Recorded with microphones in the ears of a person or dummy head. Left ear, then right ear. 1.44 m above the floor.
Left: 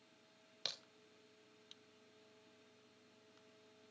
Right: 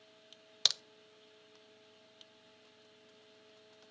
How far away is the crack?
About 0.6 m.